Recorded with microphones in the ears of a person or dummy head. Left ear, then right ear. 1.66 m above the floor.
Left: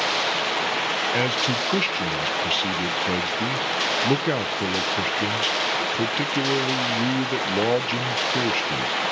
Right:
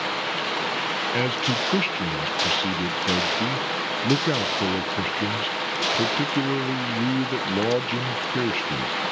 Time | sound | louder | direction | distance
0.0 | running water | left 3 dB | 20° left (ahead or behind) | 0.9 m
1.1 | a man speaking | left 1 dB | 15° left (ahead or behind) | 0.7 m